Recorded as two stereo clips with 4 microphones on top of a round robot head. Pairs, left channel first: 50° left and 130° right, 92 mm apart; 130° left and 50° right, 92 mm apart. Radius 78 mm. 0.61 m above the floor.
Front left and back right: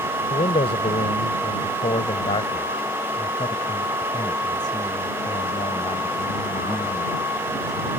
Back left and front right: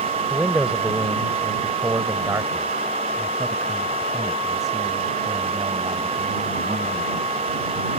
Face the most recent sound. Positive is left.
turn(degrees=-10)